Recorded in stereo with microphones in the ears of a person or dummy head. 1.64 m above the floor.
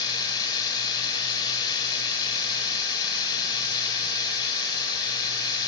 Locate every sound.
0.0 s a machine running: 20° left (ahead or behind), 3.5 m